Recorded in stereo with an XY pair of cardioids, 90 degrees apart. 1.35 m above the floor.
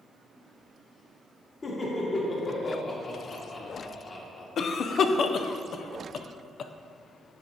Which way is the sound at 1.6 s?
40° left.